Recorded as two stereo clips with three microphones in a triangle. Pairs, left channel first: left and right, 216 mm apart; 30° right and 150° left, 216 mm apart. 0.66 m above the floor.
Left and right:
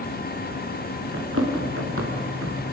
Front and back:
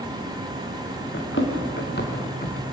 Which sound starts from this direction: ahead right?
Running footsteps, at 1.1 s.